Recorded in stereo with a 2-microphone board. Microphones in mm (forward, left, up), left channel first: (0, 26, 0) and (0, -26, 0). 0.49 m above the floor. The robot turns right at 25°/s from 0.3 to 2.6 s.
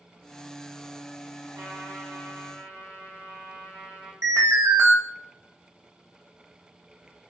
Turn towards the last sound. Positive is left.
turn(degrees=-70)  # may be behind; listen again after turning